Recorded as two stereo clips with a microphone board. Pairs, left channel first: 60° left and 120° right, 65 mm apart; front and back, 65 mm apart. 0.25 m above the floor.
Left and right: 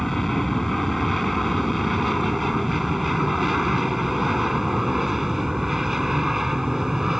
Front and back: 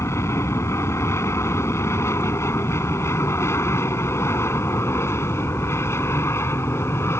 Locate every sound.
0.0 s an aircraft: 30° right; by 7.2 s 35° right